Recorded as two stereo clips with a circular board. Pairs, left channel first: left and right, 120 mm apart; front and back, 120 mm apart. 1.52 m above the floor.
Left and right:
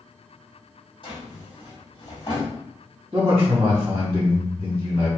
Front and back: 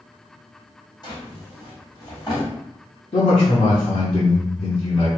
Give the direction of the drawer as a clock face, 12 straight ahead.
10 o'clock.